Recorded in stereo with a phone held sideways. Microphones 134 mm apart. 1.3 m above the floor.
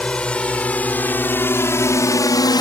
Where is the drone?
5° left (ahead or behind); by 2.6 s 30° left (ahead or behind).